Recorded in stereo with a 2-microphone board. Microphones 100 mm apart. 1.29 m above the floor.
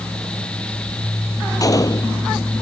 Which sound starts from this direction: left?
A gunshot, at 1.6 s.